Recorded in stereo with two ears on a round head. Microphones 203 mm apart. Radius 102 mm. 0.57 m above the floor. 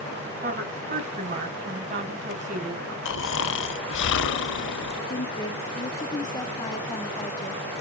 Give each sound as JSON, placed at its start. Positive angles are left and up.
{"t": 0.4, "sound": "a woman speaking", "side_deg": -35, "distance_m": 4.0}
{"t": 3.0, "sound": "snoring", "side_deg": 55, "distance_m": 0.6}
{"t": 5.1, "sound": "a woman speaking", "side_deg": 20, "distance_m": 1.0}